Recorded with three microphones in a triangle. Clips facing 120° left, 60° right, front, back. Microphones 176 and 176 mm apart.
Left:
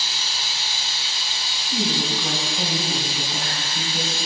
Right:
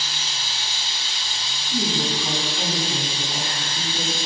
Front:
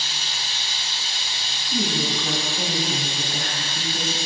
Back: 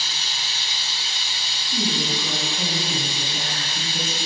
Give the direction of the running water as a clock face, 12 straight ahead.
11 o'clock.